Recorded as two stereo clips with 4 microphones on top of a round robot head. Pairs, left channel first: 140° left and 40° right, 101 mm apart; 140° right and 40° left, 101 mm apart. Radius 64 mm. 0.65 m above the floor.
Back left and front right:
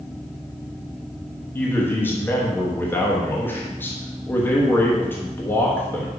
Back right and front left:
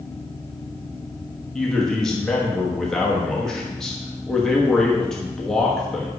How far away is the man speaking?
About 1.2 m.